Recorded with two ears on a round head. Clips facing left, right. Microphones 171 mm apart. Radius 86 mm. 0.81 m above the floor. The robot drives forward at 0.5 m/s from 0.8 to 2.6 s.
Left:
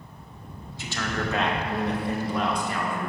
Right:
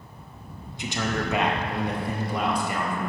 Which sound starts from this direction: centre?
A man speaking, at 0.8 s.